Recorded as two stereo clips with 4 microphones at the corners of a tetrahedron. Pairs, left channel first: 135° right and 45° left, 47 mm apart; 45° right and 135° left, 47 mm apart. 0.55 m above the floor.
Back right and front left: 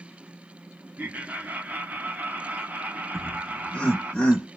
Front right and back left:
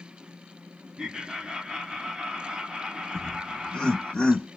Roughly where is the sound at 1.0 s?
Left.